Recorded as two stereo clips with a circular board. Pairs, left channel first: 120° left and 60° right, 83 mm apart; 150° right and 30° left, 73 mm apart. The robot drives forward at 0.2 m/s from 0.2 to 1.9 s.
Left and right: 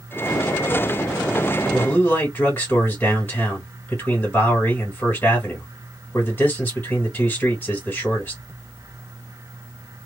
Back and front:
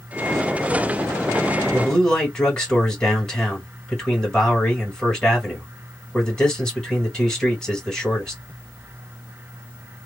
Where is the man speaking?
145° left, 1.7 m.